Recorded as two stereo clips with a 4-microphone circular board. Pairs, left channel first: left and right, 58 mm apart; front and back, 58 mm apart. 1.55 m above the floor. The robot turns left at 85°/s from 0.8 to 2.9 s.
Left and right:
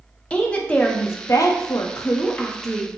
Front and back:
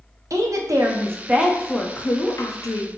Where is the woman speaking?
160° left, 0.5 m; by 2.9 s 15° right, 0.5 m.